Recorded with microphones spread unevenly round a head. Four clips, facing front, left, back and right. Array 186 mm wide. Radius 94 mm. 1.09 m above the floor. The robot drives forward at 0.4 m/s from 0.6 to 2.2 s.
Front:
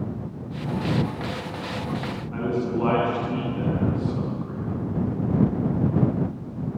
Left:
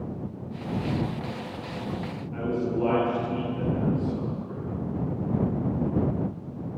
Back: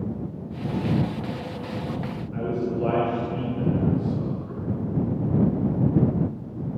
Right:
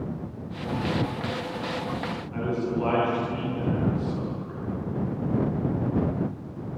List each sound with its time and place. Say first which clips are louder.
2.3 s a man speaking: left 1 dB, front 1 dB; 15° right, 9.5 m